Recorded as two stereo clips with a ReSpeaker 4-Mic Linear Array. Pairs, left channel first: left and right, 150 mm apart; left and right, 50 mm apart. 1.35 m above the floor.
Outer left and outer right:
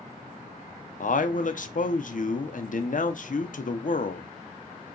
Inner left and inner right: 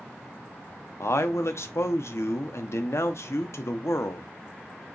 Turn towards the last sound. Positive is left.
turn(degrees=65)  # may be behind; listen again after turning